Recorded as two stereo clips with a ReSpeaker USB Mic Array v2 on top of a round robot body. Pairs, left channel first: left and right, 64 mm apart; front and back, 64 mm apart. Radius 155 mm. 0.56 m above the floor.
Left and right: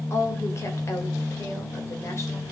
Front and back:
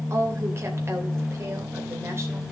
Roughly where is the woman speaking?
Behind left.